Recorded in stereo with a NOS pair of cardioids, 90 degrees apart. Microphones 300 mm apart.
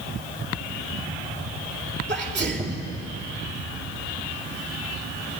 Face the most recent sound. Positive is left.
turn(degrees=-35)